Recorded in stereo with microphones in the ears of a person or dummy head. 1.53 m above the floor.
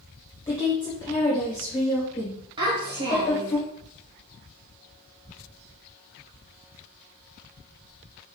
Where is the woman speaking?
15° left (ahead or behind), 1.4 m.